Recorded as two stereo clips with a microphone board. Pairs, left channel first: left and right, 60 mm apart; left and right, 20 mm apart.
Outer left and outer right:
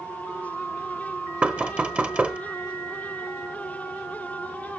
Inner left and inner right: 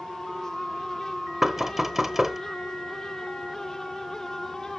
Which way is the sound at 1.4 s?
20° right (ahead or behind).